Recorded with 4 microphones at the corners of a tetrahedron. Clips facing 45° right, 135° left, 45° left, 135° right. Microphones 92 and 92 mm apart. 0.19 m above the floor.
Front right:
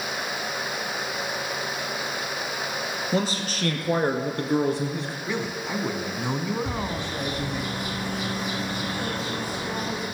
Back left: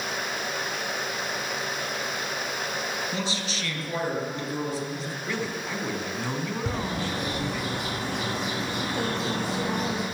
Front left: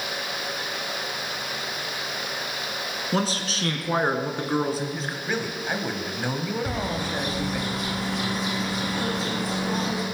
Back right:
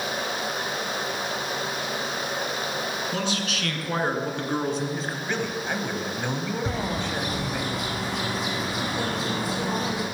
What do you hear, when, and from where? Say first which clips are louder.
3.1 s a man speaking: front right 5 dB, front left 2 dB; straight ahead, 2.5 m; by 5.2 s 50° right, 2.5 m
5.3 s a man speaking: front right 1 dB, front left 1 dB; 20° right, 1.6 m
6.7 s a bird: even, even; 155° left, 6.5 m